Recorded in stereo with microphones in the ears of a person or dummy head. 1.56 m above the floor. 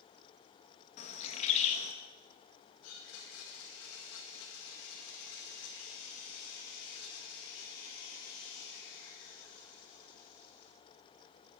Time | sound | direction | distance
1.0 | a bird | 45° left (ahead or behind) | 1.3 m
2.8 | a blender | 70° left (ahead or behind) | 2 m